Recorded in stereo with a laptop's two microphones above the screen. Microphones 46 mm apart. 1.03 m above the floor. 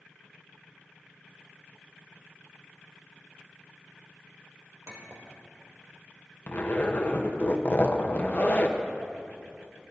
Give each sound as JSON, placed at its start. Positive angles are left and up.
{"t": 4.9, "sound": "a clink", "side_deg": -80, "distance_m": 1.9}
{"t": 6.5, "sound": "a zipper", "side_deg": 40, "distance_m": 0.8}